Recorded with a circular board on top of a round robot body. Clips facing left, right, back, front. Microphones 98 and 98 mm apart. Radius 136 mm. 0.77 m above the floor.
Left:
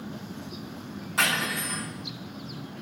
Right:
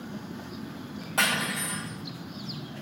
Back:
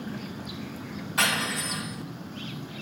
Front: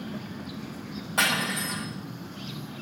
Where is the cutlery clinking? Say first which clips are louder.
Even, front 1 dB; 50° right, 1.6 m.